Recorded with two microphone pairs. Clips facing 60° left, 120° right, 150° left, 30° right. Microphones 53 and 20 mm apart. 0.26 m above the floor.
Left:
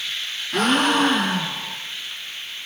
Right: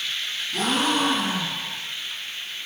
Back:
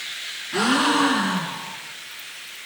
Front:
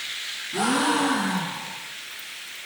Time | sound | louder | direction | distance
0.5 | a gasp | left 5 dB, back 3 dB | 90° left | 4.5 m